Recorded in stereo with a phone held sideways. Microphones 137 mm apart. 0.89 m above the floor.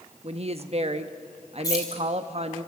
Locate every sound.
0.2 s a woman speaking: 45° right (ahead or behind), 1.0 m
1.6 s keys jangling: 25° left (ahead or behind), 3 m